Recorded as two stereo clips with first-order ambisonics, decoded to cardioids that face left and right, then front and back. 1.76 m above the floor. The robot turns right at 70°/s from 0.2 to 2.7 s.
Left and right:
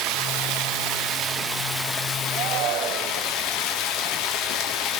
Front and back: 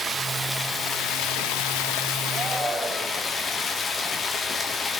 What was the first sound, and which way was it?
Running water, 105° right.